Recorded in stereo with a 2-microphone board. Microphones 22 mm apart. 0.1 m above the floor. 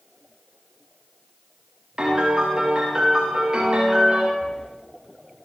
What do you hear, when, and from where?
2.0 s a piano: 30° right (ahead or behind), 8.5 m
4.4 s breathing: 45° left (ahead or behind), 3.5 m